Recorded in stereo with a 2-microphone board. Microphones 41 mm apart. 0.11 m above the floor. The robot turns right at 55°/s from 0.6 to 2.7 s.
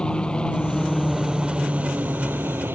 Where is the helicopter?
155° left; by 2.8 s 90° right.